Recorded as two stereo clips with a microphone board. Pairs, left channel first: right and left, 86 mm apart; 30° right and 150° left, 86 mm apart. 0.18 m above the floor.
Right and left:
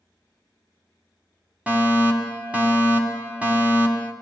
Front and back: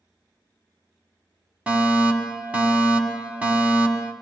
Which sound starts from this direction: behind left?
A fire alarm, at 1.7 s.